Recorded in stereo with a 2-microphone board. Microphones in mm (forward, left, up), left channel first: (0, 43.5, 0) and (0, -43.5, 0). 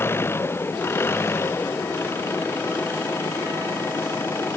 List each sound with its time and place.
0.0 s an engine running: 25° left (ahead or behind)